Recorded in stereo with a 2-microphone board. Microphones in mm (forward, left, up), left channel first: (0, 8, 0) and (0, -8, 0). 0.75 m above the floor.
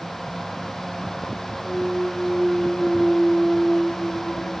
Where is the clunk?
30° right (ahead or behind), 2 m.